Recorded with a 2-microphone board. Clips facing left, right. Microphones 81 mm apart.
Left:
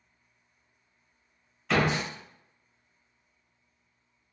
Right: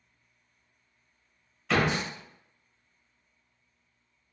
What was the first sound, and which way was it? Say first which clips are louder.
A door slam: even; 5° left (ahead or behind).